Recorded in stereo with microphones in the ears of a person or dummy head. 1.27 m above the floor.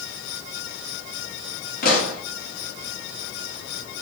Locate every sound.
1.8 s a pop: 45° left (ahead or behind), 0.7 m